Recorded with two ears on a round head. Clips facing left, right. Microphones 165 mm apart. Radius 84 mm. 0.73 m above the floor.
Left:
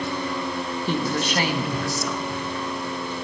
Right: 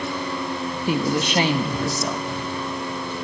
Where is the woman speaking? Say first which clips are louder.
Right 3 dB; 10° right (ahead or behind), 0.9 m; by 3.1 s 30° right (ahead or behind), 3 m.